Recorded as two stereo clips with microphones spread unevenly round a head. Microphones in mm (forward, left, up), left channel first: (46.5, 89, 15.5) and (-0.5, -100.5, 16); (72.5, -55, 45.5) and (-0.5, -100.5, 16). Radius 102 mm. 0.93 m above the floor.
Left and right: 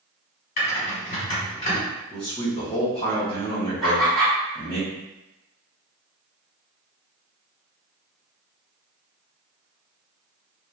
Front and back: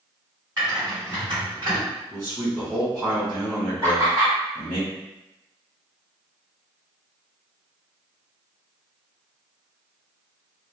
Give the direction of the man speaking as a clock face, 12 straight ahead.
8 o'clock.